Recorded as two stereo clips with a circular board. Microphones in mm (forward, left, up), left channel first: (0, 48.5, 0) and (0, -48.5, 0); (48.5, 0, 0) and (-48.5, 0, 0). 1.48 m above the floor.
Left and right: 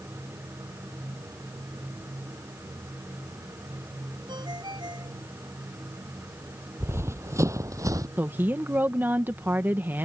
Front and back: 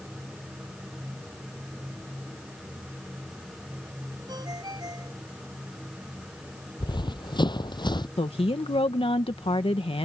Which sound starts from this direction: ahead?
A woman speaking, at 8.2 s.